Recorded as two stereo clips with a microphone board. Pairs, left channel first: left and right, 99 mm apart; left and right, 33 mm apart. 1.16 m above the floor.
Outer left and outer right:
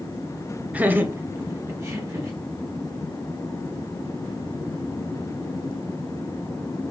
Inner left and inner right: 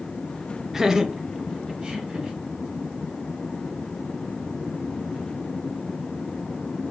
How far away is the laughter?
About 0.5 m.